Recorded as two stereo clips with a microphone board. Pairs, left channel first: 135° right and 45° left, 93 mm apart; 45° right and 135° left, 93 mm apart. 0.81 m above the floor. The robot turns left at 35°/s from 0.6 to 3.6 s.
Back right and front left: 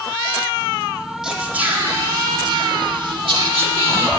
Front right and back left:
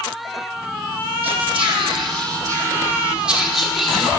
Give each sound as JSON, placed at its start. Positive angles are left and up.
{"t": 1.2, "sound": "whispering", "azimuth_deg": 130, "distance_m": 1.4}